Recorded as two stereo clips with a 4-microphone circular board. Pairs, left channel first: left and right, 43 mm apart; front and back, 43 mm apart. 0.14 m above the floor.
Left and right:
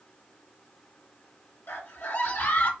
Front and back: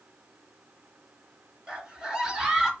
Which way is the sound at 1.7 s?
110° left.